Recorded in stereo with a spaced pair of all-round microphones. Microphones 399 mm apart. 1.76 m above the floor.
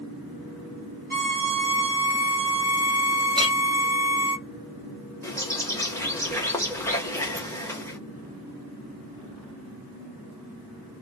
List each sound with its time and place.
1.1 s a violin: 20° left (ahead or behind), 1.3 m
3.4 s a clink: 10° right (ahead or behind), 0.9 m
5.2 s a bird: 5° left (ahead or behind), 0.8 m